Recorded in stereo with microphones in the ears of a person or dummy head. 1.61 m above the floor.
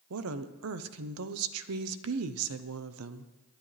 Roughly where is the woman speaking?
Right.